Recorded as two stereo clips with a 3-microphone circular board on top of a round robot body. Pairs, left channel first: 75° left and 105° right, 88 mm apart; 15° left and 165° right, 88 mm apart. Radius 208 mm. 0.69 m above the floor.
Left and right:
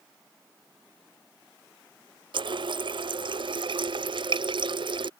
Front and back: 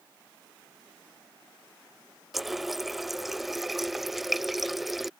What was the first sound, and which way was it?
A running tap, 75° right.